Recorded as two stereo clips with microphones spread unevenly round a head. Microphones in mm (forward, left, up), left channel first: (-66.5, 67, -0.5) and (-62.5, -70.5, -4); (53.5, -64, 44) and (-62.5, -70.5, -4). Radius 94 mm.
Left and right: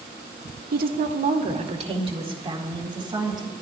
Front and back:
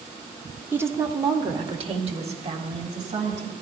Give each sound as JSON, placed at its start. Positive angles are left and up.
{"t": 0.7, "sound": "a woman speaking", "azimuth_deg": -95, "distance_m": 1.4}